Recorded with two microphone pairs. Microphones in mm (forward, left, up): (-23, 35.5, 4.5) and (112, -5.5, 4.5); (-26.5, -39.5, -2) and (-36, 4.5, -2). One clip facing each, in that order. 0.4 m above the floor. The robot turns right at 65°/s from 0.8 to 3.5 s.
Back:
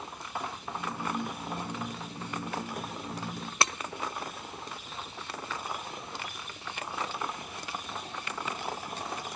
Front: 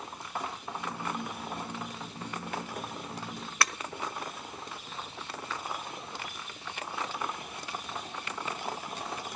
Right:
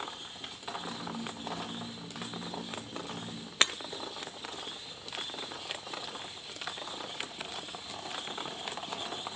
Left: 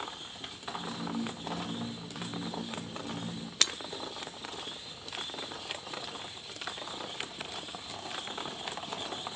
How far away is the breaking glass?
About 0.9 m.